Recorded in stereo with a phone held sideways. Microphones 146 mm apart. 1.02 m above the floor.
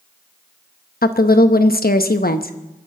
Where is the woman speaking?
80° left, 0.9 m.